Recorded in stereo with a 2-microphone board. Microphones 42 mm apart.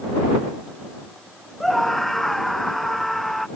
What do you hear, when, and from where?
1.6 s a scream: 5° left (ahead or behind)